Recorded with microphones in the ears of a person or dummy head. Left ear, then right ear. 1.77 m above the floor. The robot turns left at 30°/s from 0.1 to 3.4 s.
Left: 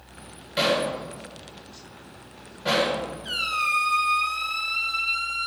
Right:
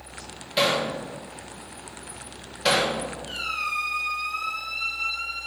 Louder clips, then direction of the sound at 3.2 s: Left 5 dB; 40° left (ahead or behind).